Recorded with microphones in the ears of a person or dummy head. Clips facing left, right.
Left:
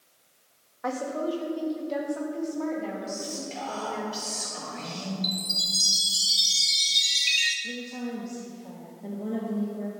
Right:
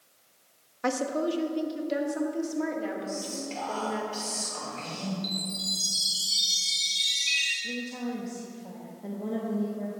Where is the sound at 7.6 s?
5° right (ahead or behind), 1.2 m.